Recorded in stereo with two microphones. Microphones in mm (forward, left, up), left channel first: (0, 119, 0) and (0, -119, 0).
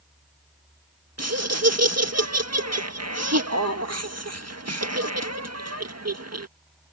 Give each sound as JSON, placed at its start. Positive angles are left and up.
{"t": 1.2, "sound": "laughter", "side_deg": -80}